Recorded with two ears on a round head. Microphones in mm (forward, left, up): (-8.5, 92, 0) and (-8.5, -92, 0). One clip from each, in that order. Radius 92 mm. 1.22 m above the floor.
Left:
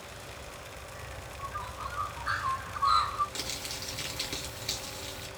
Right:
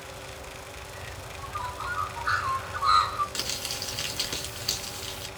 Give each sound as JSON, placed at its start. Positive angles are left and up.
{"t": 0.9, "sound": "a bird", "side_deg": -55, "distance_m": 5.0}
{"t": 3.4, "sound": "crumpling", "side_deg": -25, "distance_m": 3.0}